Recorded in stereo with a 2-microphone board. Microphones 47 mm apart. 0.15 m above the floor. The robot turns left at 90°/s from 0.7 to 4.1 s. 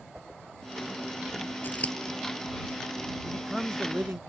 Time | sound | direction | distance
0.1 | a whoosh | 15° right (ahead or behind) | ?
1.6 | scissors | 45° left (ahead or behind) | ?
3.2 | a man speaking | 25° left | ?